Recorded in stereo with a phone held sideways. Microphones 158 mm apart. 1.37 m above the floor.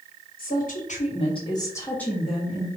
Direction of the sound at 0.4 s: 65° left (ahead or behind).